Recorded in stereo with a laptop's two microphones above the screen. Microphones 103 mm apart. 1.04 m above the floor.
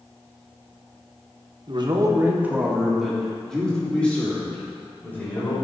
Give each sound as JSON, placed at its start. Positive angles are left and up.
{"t": 1.7, "sound": "a man speaking", "side_deg": -50, "distance_m": 1.2}